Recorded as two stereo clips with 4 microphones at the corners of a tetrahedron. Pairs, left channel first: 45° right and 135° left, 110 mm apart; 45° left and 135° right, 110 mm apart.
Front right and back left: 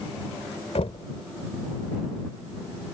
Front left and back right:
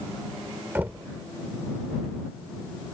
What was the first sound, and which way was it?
Knocking, 60° right.